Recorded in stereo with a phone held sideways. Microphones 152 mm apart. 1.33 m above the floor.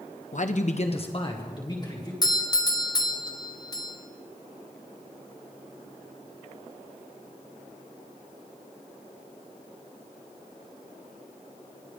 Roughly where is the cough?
No cough in this recording.